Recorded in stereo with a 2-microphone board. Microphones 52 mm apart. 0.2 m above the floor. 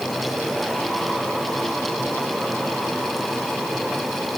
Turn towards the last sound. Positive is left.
No sound to turn to.